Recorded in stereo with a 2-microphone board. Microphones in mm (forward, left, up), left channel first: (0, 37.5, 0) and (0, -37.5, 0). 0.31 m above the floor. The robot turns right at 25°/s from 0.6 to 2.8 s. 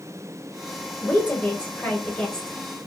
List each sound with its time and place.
1.0 s a woman speaking: 20° left (ahead or behind), 1.0 m; by 2.8 s 5° left (ahead or behind), 1.0 m